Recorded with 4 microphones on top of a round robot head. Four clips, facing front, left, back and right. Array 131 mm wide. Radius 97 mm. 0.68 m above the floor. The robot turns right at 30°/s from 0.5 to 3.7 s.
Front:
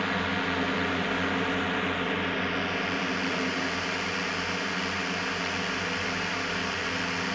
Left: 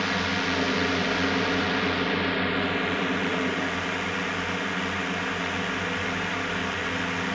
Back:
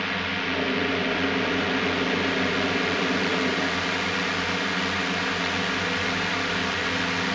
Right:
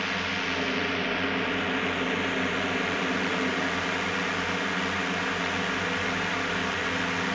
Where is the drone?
80° left; by 7.3 s 175° left.